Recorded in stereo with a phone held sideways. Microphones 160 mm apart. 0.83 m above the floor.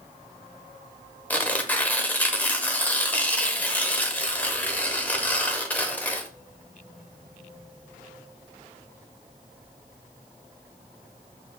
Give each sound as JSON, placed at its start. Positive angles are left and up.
{"t": 1.3, "sound": "tearing paper", "side_deg": 10, "distance_m": 0.6}